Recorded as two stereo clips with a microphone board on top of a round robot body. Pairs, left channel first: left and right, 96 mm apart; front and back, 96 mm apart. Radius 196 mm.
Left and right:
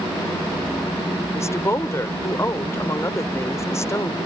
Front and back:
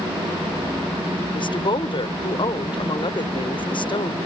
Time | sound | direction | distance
1.3 | a woman speaking | 30° left | ?